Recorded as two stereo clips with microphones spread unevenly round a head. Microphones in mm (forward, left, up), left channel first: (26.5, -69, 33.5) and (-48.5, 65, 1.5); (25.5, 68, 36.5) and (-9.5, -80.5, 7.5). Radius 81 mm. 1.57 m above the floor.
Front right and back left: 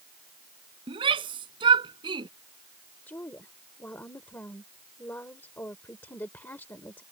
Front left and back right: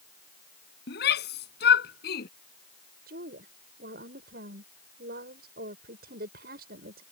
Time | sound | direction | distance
0.9 | a shout | 55° left | ?
3.1 | a woman speaking | 140° right | ?